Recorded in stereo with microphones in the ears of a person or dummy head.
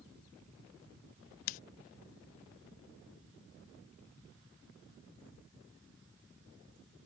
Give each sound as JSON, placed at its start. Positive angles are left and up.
{"t": 1.5, "sound": "scissors", "side_deg": 40}